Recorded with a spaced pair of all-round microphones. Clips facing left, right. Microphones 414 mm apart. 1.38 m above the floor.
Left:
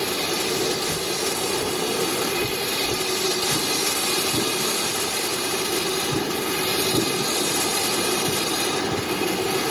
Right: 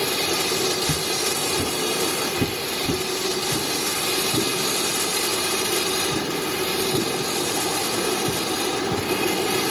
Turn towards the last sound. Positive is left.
turn(degrees=-60)  # may be behind; listen again after turning